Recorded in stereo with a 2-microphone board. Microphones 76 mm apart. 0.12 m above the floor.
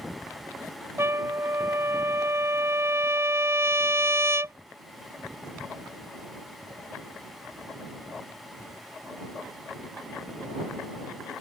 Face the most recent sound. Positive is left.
turn(degrees=-35)  # may be behind; listen again after turning